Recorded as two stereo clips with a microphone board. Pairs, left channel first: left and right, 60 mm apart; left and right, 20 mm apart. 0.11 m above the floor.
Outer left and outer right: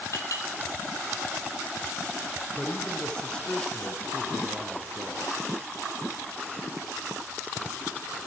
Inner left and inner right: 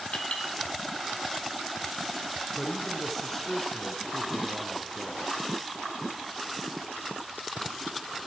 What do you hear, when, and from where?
0.1 s a clink: 60° left (ahead or behind), 3 m
2.6 s a man speaking: 15° left (ahead or behind), 1.4 m